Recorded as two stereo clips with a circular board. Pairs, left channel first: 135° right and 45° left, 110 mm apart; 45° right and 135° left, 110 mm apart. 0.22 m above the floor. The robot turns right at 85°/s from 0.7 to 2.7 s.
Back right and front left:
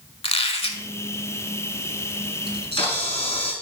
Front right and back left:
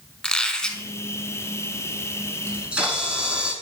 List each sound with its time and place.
0.2 s a squeak: 125° right, 0.6 m; by 0.8 s 115° right, 0.6 m
2.5 s a camera shutter: 165° right, 1.4 m; by 3.5 s 145° right, 1.4 m